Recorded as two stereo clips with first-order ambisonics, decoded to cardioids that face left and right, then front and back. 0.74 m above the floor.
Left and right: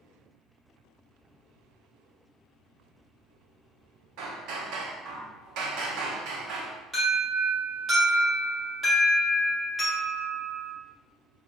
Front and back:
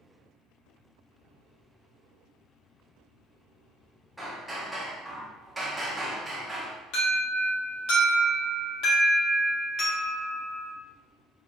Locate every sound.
4.2 s hammering: 95° right, 0.8 m
6.9 s an alarm: 10° right, 1.6 m